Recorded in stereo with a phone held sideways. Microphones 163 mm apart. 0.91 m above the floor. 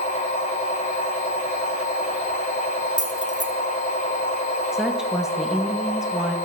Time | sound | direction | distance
0.0 | a machine running | 50° left (ahead or behind) | 2.5 m
3.0 | keys jangling | 45° right (ahead or behind) | 0.7 m
4.7 | a woman speaking | 5° right (ahead or behind) | 0.8 m